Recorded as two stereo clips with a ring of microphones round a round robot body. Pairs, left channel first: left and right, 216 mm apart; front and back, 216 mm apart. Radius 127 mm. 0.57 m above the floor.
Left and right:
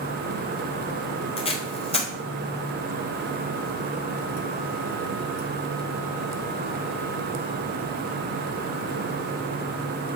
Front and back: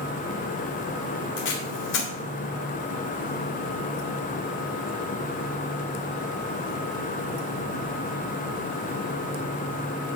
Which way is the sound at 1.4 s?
30° left.